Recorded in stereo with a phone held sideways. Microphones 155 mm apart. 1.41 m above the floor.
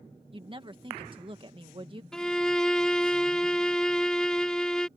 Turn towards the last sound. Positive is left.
turn(degrees=5)  # may be behind; listen again after turning